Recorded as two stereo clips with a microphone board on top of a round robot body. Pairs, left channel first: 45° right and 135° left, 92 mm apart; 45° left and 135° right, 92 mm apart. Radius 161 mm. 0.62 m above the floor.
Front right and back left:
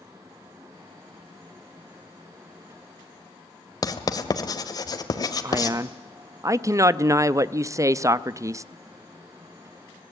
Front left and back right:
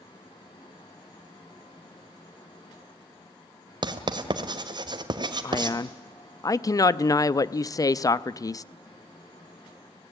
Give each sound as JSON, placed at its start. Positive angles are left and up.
{"t": 3.8, "sound": "writing", "azimuth_deg": -95, "distance_m": 1.7}
{"t": 5.4, "sound": "a man speaking", "azimuth_deg": 85, "distance_m": 0.8}